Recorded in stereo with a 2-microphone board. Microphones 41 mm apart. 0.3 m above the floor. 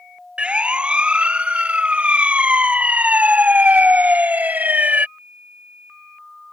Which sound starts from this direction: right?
A siren, at 0.4 s.